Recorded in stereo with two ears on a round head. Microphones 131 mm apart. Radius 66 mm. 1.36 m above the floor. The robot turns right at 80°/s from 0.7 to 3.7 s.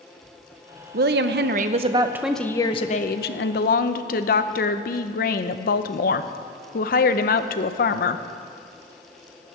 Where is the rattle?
I don't hear a rattle.